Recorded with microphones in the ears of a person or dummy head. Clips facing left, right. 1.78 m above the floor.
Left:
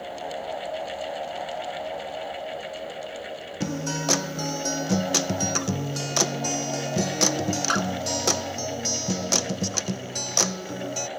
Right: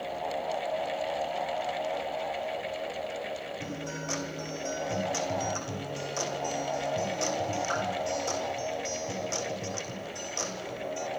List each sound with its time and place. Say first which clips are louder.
3.6 s a guitar: left 8 dB; 70° left (ahead or behind), 1.7 m